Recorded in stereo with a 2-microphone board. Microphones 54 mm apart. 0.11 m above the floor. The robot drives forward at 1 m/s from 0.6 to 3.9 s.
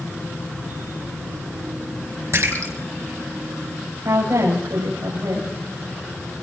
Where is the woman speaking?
70° right (ahead or behind), 8.5 m.